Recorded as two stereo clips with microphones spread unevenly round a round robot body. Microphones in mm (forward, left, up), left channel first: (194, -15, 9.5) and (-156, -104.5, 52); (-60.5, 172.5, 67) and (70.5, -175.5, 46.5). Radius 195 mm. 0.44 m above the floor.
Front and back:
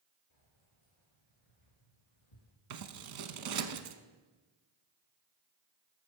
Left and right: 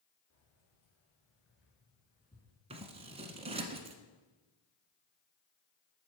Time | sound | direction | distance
0.3 | keys jangling | 65° left | 5.5 m
2.7 | scissors | 145° right | 0.9 m